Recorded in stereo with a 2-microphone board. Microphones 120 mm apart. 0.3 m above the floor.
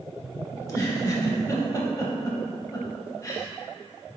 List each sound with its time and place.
0.6 s a giggle: 30° left (ahead or behind), 0.5 m